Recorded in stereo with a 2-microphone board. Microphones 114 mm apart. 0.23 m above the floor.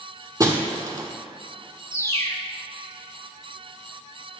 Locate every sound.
0.4 s breaking glass: 30° right (ahead or behind), 1.0 m
1.9 s a bird: 25° left (ahead or behind), 0.8 m